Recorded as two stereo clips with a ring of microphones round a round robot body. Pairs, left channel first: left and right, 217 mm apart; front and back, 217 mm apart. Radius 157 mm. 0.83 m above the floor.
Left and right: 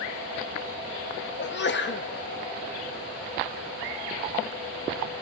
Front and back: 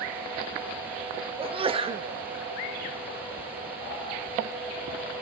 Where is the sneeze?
115° left, 1.1 m.